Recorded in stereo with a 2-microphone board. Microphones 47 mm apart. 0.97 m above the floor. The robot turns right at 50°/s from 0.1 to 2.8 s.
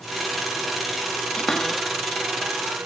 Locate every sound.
1.4 s a cupboard door: 20° left (ahead or behind); by 2.9 s 50° right (ahead or behind)